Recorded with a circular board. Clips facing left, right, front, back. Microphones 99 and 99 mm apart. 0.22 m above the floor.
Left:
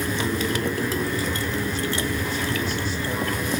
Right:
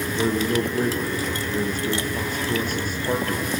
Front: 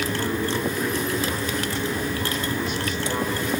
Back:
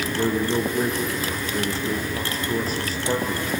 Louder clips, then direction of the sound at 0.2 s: Right 7 dB, back 3 dB; 125° right.